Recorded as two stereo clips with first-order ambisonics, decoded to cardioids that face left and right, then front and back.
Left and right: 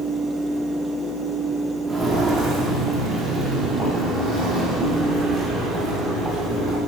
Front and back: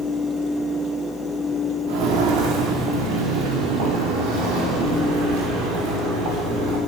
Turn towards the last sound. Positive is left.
turn(degrees=-150)